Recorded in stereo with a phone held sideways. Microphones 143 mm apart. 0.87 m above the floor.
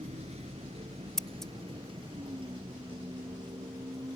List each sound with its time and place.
0.0 s a vehicle: 50° right (ahead or behind); by 4.2 s 30° right (ahead or behind)
1.2 s scissors: centre (ahead or behind)